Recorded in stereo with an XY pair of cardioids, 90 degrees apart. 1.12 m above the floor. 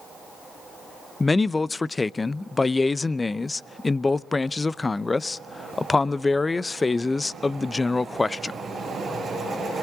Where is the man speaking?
25° left, 0.6 m.